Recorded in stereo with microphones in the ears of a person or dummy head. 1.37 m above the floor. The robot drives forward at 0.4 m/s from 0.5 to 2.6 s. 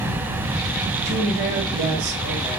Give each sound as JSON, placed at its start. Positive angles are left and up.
{"t": 1.1, "sound": "a woman speaking", "side_deg": -50, "distance_m": 1.5}